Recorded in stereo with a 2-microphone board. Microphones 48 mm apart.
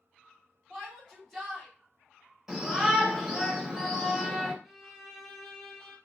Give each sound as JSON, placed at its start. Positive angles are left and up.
{"t": 0.7, "sound": "a shout", "side_deg": 5, "distance_m": 1.8}
{"t": 2.5, "sound": "a shout", "side_deg": -10, "distance_m": 1.1}
{"t": 4.6, "sound": "a violin", "side_deg": 0, "distance_m": 0.7}